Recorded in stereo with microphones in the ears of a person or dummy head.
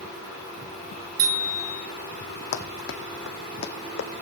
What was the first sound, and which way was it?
A bicycle bell, 60° right (ahead or behind).